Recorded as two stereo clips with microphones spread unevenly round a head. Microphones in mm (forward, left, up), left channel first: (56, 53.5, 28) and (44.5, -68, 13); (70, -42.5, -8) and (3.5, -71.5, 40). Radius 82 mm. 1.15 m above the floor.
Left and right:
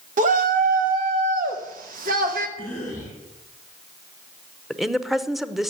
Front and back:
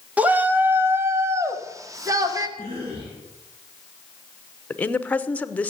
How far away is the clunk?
No clunk in this recording.